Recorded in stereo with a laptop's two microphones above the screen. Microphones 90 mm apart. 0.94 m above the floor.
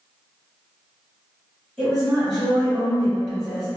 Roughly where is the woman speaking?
Centre.